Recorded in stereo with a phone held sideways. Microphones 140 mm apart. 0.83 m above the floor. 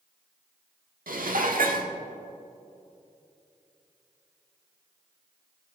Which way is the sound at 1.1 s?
80° right.